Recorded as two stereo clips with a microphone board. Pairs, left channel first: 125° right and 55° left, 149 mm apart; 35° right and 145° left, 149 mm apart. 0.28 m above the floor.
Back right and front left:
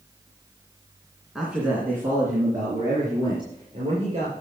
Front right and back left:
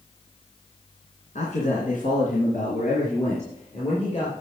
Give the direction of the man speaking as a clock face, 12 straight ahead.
1 o'clock.